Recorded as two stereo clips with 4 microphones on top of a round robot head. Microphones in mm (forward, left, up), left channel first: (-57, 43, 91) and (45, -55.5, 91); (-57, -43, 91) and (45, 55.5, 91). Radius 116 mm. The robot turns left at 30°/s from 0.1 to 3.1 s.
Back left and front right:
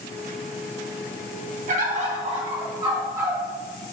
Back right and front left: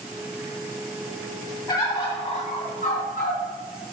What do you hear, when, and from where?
1.7 s a bird: 75° right, 2 m; by 3.4 s 115° right, 2 m